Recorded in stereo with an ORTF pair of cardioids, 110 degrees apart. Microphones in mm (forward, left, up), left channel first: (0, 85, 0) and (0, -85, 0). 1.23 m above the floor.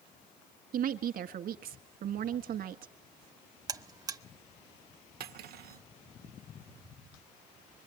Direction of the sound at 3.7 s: 20° right.